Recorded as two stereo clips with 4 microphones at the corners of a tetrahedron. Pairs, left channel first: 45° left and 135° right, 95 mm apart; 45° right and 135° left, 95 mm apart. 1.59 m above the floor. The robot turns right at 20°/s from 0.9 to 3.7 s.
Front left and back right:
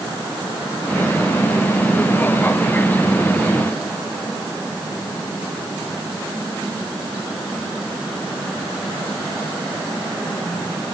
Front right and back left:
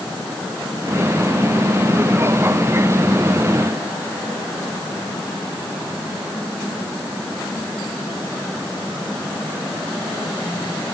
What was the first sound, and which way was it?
Only background noise.